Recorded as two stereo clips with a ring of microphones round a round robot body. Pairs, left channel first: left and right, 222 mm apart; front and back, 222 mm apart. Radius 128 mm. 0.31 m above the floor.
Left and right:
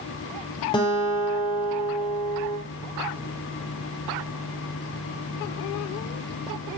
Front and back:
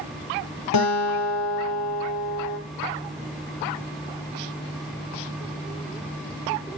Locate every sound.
0.7 s a guitar: 15° left, 4.5 m